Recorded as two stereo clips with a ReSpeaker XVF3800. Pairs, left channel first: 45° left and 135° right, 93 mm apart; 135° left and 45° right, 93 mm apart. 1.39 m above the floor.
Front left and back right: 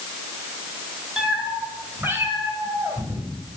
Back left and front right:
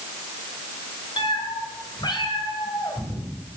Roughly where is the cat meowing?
Behind left.